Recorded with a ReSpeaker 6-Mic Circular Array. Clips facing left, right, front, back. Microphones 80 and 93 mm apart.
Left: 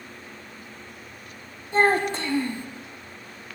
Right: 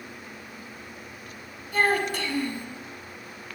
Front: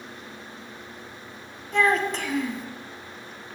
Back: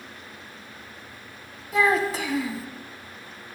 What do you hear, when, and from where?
1.7 s a child speaking: 100° left, 0.8 m